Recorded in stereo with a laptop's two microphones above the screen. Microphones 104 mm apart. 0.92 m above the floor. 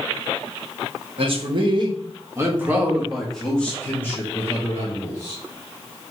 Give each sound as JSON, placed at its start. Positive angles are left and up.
{"t": 1.2, "sound": "a man speaking", "side_deg": -55, "distance_m": 1.1}